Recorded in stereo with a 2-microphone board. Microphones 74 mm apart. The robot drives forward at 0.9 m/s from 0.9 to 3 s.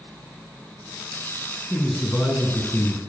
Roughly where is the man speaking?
Centre.